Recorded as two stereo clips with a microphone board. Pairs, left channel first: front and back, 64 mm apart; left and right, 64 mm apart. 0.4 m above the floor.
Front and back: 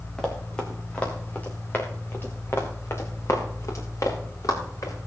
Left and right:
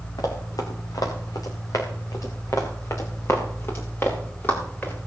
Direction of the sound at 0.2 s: 85° left.